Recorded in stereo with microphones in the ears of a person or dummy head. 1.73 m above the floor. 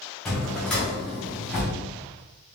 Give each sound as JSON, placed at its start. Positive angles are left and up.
{"t": 0.2, "sound": "a drawer", "side_deg": 5, "distance_m": 0.9}